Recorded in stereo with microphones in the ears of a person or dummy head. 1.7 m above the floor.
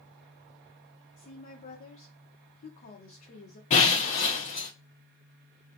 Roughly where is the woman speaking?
Left.